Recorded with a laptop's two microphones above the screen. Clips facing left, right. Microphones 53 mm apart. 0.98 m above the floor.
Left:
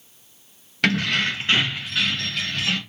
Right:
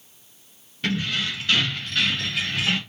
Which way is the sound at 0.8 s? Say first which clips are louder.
Left 5 dB; 85° left.